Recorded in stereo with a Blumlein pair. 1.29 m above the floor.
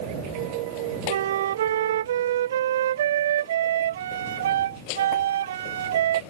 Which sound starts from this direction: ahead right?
A flute, at 1.1 s.